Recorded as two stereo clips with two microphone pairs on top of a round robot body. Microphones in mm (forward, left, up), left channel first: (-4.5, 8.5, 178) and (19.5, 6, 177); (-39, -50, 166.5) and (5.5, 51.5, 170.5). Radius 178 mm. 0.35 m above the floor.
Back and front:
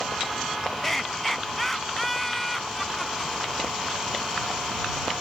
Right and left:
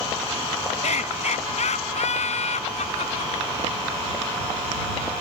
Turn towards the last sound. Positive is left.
turn(degrees=-100)